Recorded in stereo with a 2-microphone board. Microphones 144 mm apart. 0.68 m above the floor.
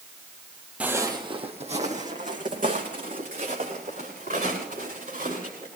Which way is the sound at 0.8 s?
10° right (ahead or behind).